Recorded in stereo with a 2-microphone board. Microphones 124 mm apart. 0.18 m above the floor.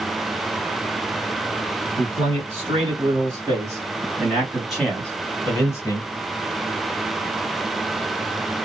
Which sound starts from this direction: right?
A man speaking, at 2.0 s.